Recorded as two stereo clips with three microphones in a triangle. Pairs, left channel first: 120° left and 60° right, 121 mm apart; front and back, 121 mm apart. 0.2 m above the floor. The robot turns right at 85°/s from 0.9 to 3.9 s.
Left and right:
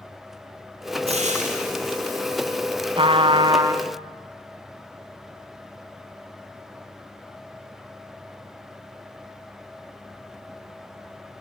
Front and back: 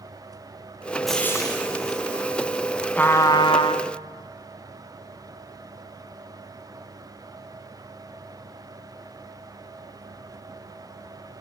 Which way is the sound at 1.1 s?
90° right.